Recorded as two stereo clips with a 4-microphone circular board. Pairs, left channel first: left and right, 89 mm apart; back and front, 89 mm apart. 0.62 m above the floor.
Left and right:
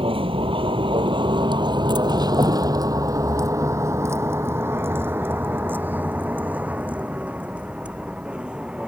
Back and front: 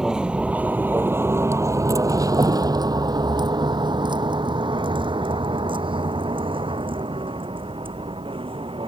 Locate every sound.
0.0 s a vehicle: 85° right; by 8.9 s 10° right